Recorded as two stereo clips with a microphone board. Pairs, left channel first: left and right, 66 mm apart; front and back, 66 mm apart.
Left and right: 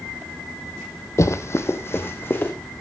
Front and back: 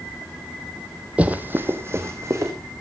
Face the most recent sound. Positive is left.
turn(degrees=140)